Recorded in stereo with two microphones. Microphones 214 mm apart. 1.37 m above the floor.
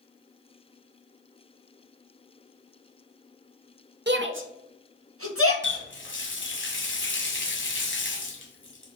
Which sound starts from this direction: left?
A running tap, at 5.6 s.